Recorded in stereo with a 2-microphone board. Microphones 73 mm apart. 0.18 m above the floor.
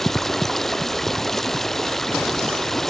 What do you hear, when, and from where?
0.0 s running water: 5° left (ahead or behind)